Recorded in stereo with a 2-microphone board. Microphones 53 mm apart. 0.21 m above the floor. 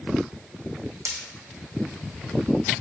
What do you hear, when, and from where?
1.1 s breaking glass: 75° right (ahead or behind), 3 m